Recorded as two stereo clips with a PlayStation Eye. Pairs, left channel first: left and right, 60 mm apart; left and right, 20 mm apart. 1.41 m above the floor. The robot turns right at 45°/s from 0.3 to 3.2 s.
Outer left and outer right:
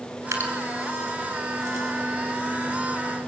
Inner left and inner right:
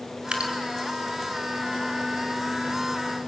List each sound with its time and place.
0.3 s dripping: 70° right (ahead or behind), 3.5 m